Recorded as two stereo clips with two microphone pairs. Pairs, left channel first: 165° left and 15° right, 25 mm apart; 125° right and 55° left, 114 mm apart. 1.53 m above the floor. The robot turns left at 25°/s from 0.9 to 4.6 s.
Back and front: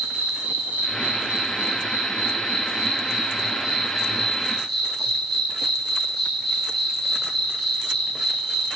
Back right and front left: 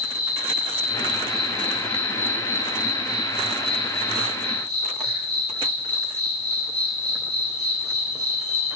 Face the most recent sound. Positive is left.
turn(degrees=-110)